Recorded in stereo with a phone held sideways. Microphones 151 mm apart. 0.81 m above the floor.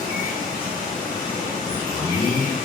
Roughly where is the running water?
Right.